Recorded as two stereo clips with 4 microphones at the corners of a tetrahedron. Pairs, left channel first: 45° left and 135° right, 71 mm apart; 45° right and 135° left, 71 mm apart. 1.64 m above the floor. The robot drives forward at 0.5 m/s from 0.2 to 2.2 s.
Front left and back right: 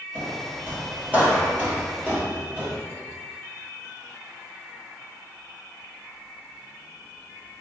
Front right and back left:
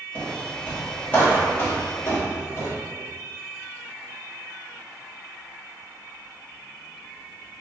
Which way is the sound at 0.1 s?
100° right.